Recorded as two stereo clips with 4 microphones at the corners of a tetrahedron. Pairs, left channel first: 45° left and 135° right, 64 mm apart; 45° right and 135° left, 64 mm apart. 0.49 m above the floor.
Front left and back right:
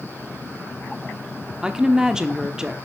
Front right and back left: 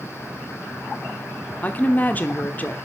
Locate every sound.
1.6 s a woman speaking: 65° right, 1.1 m